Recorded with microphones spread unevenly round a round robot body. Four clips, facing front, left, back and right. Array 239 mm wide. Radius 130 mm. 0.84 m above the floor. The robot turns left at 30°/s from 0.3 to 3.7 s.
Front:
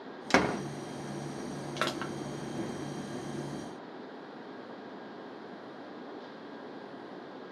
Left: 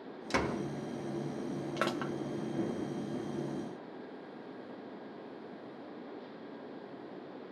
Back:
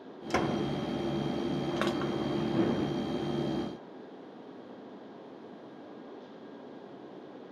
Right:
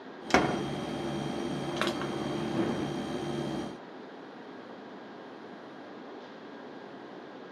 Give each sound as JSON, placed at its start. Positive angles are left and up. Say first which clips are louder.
{"t": 0.3, "sound": "a door slam", "louder": "right 7 dB, front 2 dB", "azimuth_deg": -50, "distance_m": 0.9}
{"t": 1.8, "sound": "crushing", "louder": "right 1 dB, back 1 dB", "azimuth_deg": 135, "distance_m": 0.6}